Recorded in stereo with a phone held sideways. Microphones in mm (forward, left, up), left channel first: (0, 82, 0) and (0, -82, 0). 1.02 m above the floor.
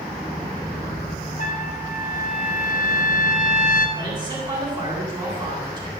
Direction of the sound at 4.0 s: 25° right (ahead or behind).